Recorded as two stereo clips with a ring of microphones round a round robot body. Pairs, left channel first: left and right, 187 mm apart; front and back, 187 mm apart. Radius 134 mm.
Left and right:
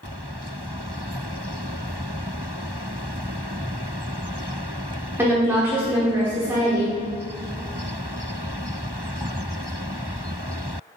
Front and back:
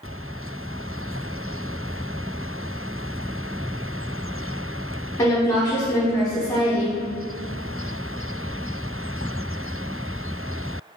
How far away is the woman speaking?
About 1.0 m.